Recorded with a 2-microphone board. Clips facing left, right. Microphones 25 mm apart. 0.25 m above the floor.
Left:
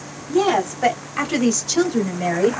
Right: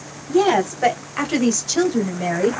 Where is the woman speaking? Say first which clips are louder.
Right 1 dB; 15° right (ahead or behind), 1.2 m; by 2.6 s 5° left (ahead or behind), 1.1 m.